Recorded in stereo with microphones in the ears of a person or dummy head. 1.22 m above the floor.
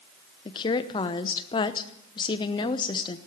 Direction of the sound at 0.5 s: 25° left (ahead or behind).